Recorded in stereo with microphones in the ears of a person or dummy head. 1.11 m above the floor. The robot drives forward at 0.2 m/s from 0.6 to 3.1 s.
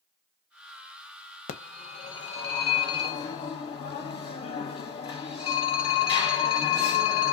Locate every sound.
1.5 s a phone ringing: 45° left (ahead or behind), 0.6 m; by 7.3 s 30° left (ahead or behind), 0.8 m